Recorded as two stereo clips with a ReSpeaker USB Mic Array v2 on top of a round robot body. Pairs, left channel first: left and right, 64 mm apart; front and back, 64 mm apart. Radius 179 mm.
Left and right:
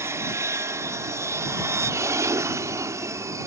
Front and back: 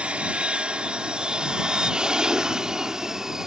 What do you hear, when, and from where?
0.0 s an aircraft: 110° right; by 3.5 s 100° right